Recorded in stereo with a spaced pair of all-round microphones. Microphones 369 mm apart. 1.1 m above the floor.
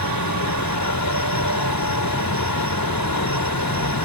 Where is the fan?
70° left (ahead or behind).